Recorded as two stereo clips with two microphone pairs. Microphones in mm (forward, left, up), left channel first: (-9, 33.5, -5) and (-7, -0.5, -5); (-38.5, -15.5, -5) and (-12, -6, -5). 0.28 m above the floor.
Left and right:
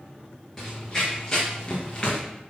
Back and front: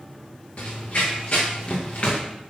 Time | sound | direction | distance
0.6 | running footsteps | 165° left | 4 m